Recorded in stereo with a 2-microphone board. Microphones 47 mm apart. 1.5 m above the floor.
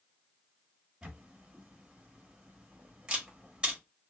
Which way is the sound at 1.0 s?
20° right (ahead or behind).